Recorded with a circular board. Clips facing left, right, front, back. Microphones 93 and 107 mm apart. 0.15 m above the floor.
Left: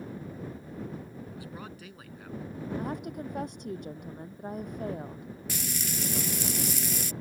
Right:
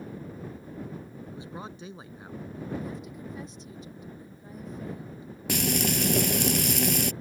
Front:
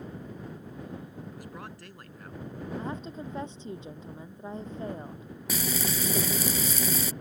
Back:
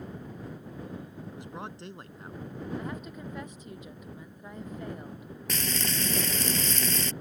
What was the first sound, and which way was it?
A man speaking, 135° right.